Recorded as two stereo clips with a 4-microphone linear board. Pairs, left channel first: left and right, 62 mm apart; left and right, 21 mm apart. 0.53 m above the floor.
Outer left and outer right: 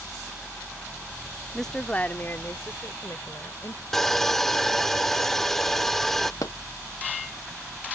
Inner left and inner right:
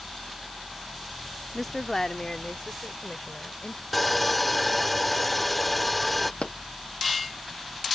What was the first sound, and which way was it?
A woman speaking, centre (ahead or behind).